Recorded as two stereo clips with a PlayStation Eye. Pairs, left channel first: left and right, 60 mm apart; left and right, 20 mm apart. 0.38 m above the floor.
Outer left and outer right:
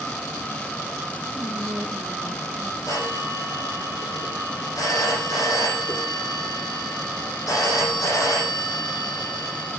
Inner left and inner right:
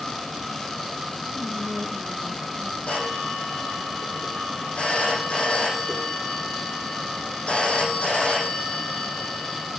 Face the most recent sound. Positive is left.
turn(degrees=70)  # may be behind; listen again after turning